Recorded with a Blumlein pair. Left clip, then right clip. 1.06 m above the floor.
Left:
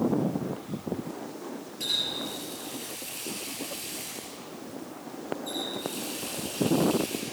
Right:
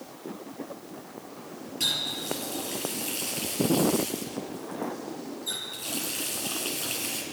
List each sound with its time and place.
1.8 s a running tap: 25° right, 4.5 m